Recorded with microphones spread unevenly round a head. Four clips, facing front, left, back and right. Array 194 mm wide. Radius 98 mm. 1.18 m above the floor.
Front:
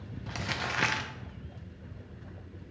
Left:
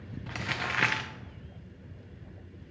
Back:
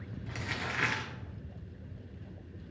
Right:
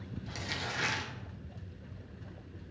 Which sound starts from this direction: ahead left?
Crumpling, at 0.3 s.